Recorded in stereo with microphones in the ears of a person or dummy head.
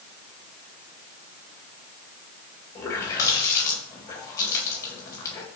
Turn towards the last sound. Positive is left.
turn(degrees=25)  # may be behind; listen again after turning